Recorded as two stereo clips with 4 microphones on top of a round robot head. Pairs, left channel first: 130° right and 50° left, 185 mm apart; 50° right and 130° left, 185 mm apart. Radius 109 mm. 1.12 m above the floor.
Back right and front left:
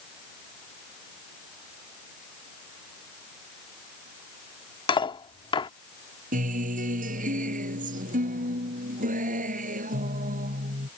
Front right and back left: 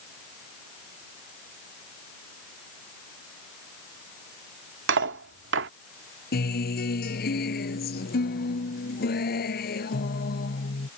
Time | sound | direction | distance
4.9 | cutlery clinking | 160° left | ?
6.3 | a guitar | 5° right | ?